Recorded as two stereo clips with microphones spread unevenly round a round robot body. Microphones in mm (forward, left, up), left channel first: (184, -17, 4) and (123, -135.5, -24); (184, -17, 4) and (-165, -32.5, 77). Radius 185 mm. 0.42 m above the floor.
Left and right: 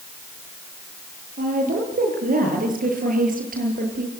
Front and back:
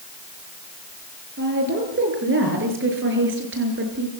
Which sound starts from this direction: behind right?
A woman speaking, at 1.4 s.